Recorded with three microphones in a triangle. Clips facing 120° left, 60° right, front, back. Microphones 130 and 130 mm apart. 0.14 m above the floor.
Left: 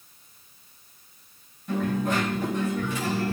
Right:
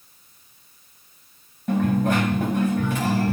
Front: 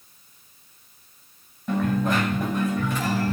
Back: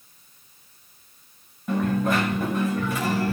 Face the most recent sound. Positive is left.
turn(degrees=-95)